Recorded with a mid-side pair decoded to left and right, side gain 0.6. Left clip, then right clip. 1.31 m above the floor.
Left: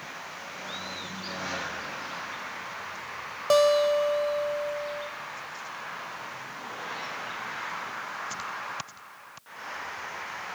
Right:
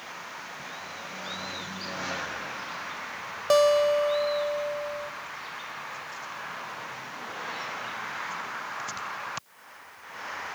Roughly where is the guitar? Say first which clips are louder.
Even; ahead.